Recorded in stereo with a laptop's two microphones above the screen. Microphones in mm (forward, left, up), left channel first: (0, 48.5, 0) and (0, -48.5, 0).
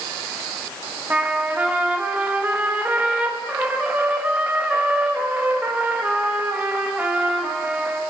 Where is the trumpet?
20° right (ahead or behind), 1.5 m.